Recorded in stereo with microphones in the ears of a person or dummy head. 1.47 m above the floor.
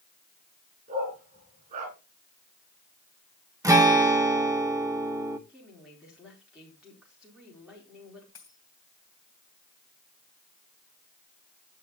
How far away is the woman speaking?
About 4.5 m.